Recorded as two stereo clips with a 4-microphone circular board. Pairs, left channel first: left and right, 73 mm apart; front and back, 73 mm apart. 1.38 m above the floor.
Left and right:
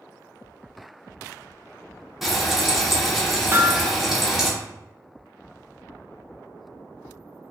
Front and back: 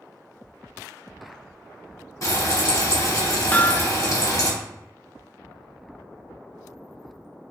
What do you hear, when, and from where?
2.2 s frying: 5° right, 1.2 m
3.5 s hammering: 55° right, 0.6 m